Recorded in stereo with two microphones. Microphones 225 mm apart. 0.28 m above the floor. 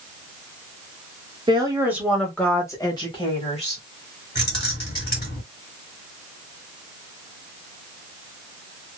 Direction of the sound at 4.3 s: 50° left (ahead or behind).